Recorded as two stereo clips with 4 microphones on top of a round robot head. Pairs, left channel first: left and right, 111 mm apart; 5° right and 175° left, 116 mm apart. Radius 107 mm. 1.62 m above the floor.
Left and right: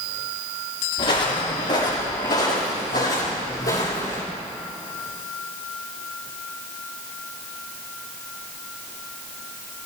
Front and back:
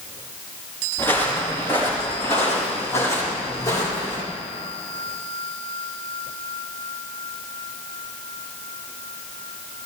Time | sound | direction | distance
1.0 | footsteps | 70° left | 5 m